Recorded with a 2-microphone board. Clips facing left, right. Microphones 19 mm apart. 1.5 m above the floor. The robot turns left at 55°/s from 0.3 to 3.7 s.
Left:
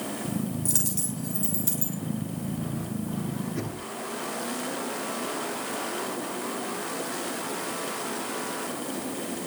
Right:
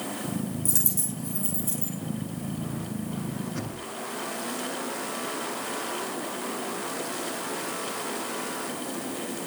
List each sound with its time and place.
0.7 s a dropped coin: 30° left (ahead or behind), 6 m; by 1.9 s 70° left (ahead or behind), 6 m
3.5 s knocking: 75° right (ahead or behind), 8.5 m; by 3.9 s 65° right (ahead or behind), 8.5 m